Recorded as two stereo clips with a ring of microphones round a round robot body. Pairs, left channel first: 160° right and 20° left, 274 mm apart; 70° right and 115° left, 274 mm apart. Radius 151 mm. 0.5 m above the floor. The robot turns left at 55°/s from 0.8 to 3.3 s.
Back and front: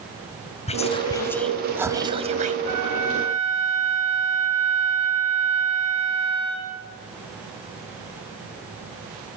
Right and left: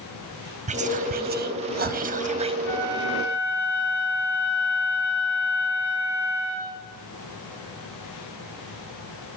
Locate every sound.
0.7 s whispering: 155° left, 0.8 m; by 2.5 s 55° left, 0.8 m
2.6 s a flute: 20° left, 6.5 m; by 6.8 s 15° right, 6.5 m